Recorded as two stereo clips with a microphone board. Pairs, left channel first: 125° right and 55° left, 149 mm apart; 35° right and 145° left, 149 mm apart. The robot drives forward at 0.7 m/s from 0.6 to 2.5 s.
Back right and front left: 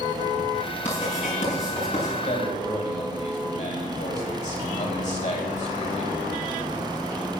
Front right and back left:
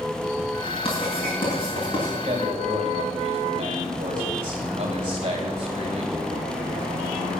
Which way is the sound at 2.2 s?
160° right.